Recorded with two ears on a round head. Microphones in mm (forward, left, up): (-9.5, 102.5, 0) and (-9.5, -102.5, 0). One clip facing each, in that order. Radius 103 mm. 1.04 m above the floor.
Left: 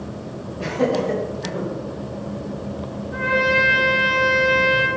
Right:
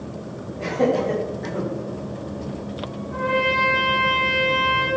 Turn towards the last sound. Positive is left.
turn(degrees=40)  # may be behind; listen again after turning